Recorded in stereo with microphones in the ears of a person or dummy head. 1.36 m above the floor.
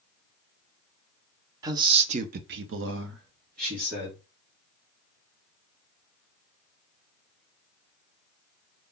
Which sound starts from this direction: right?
A man speaking, at 1.6 s.